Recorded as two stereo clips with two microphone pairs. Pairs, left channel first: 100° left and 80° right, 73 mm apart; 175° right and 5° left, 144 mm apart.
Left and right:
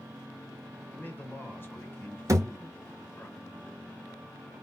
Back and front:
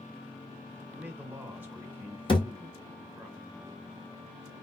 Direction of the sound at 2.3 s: 125° right.